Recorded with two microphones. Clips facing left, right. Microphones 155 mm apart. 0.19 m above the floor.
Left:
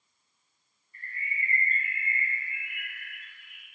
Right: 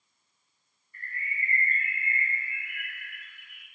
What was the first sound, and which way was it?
A bird, 25° left (ahead or behind).